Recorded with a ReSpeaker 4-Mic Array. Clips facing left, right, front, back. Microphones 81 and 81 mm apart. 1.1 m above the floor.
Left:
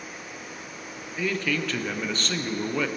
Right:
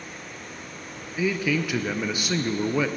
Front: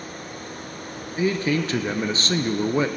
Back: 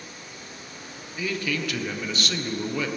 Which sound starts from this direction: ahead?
A man speaking, at 1.2 s.